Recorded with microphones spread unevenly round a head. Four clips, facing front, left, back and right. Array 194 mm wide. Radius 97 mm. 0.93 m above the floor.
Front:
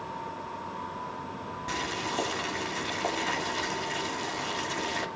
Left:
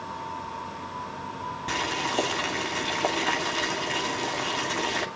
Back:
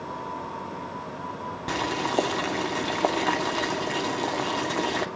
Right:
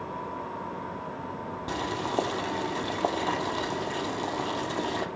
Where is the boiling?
170° right, 2.5 m.